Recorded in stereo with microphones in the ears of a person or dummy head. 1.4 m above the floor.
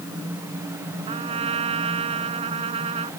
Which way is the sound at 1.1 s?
30° right (ahead or behind).